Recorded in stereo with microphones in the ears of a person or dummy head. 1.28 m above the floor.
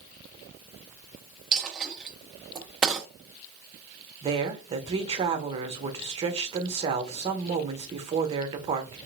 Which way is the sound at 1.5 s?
10° right (ahead or behind).